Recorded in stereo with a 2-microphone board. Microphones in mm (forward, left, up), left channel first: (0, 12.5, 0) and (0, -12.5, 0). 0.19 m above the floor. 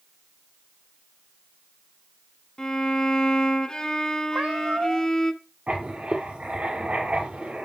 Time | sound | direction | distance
2.6 | a violin | 30° left (ahead or behind) | 1.8 m
4.3 | a cat meowing | 60° right (ahead or behind) | 0.8 m
5.7 | writing | 60° right (ahead or behind) | 4 m